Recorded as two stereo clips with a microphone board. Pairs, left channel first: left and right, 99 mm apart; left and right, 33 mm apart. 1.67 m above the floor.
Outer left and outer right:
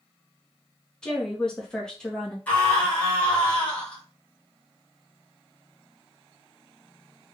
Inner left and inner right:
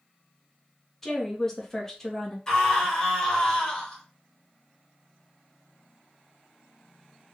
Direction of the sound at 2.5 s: 15° left (ahead or behind).